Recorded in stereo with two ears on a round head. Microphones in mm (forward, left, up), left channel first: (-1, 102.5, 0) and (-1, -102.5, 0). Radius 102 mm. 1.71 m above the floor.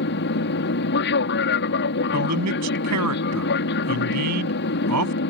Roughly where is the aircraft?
Left.